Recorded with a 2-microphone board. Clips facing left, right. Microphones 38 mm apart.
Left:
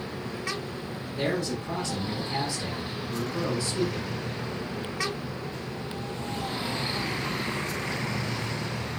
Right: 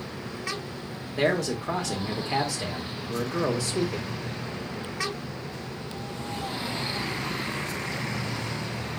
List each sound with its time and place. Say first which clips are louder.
1.2 s a man speaking: right 4 dB; 80° right, 1.4 m